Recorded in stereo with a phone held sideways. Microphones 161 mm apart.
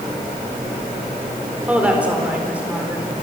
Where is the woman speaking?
10° right (ahead or behind), 3.5 m.